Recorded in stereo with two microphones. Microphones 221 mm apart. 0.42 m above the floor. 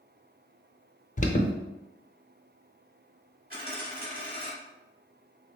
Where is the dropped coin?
45° right (ahead or behind), 2.0 m.